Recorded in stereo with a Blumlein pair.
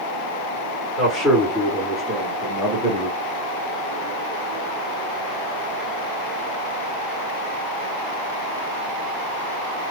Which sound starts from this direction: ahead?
A man speaking, at 1.0 s.